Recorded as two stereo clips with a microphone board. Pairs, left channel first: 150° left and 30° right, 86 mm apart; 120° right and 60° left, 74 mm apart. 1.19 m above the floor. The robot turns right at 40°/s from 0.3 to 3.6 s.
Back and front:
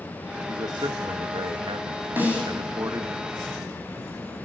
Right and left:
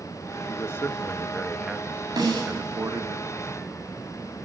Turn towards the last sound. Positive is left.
turn(degrees=95)